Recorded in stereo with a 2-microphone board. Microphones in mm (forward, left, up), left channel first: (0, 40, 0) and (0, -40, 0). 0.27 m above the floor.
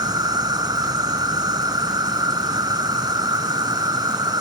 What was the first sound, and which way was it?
An insect, 60° right (ahead or behind).